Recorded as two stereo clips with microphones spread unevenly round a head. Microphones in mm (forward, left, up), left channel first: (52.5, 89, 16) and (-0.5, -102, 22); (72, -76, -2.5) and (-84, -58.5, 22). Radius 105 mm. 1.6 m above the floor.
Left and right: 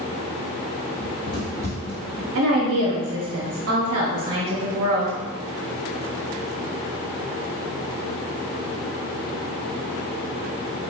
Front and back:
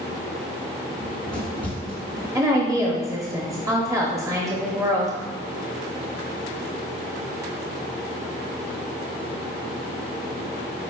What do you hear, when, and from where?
1.0 s running footsteps: 110° left, 1.7 m; by 2.2 s 5° right, 1.6 m
2.4 s a woman speaking: 120° right, 0.8 m